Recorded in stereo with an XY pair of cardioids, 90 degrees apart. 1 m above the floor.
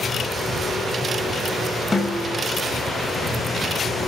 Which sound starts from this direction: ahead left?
A snare drum, at 1.9 s.